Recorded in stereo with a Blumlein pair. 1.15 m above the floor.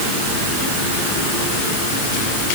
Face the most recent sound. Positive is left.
No sound to turn to.